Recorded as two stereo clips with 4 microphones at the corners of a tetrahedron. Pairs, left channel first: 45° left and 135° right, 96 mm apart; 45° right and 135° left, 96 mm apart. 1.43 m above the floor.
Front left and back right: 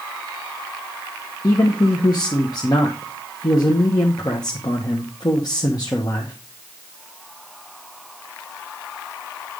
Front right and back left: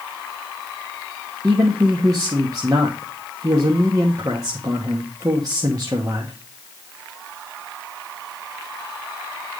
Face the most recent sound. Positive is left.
turn(degrees=85)